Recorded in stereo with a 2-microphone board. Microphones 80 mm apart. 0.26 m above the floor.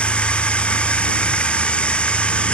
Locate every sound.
0.0 s running water: 15° left (ahead or behind)